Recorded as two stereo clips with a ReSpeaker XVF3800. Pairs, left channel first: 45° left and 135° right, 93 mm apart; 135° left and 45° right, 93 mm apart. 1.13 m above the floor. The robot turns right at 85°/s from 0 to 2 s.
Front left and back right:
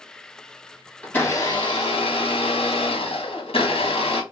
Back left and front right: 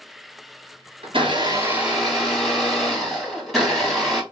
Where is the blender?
40° right, 1.1 m; by 4.2 s 45° left, 1.1 m.